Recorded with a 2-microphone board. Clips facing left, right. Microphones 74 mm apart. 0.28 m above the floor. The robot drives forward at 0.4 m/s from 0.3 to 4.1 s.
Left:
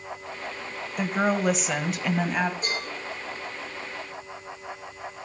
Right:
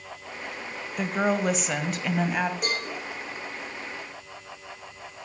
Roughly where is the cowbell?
Right.